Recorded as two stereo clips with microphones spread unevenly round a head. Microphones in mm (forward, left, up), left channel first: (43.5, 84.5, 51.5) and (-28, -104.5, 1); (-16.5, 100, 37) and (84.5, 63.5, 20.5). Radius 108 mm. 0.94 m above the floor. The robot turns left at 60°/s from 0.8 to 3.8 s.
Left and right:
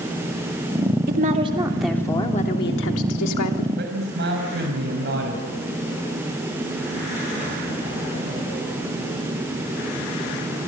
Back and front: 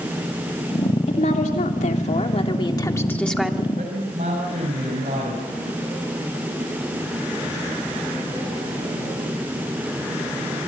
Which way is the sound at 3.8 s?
70° right.